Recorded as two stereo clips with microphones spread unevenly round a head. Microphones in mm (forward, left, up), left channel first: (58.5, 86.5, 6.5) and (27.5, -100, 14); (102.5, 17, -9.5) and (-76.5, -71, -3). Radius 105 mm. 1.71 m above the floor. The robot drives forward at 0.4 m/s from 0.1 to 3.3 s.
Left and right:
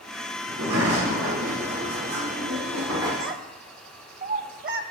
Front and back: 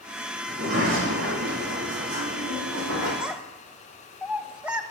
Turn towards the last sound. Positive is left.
turn(degrees=-70)